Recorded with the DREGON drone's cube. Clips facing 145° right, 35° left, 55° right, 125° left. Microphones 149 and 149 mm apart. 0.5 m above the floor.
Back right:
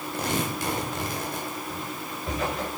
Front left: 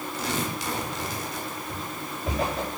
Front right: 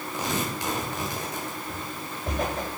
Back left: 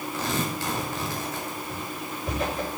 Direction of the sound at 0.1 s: 125° right.